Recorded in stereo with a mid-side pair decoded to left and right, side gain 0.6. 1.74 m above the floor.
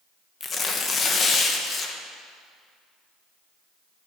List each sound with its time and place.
0.4 s tearing paper: 35° left, 1.9 m